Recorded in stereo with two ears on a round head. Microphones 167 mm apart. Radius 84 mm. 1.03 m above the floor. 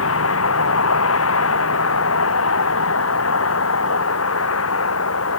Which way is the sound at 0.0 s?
85° left.